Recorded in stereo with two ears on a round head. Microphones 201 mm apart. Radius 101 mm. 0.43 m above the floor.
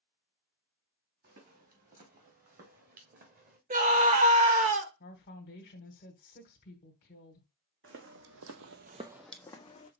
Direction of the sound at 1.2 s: 40° right (ahead or behind).